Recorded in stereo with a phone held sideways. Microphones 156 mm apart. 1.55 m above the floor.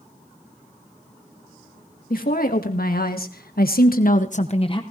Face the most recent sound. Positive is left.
turn(degrees=30)  # may be behind; listen again after turning